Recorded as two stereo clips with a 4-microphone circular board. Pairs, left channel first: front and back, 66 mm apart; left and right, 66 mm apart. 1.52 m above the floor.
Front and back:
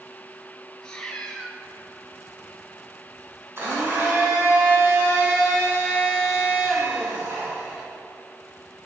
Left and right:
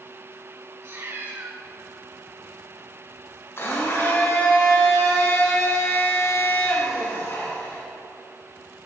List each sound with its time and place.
0.8 s a cat meowing: 75° right, 1.4 m
3.6 s a blender: 135° left, 4 m